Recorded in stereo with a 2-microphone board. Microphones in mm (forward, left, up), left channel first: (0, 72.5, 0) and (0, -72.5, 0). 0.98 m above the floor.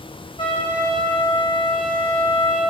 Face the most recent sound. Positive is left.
turn(degrees=40)  # may be behind; listen again after turning